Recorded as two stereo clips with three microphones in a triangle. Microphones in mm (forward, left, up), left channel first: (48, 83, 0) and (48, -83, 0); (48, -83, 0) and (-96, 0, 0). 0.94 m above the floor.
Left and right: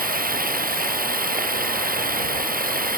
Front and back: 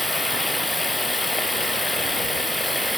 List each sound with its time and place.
0.0 s running water: 120° right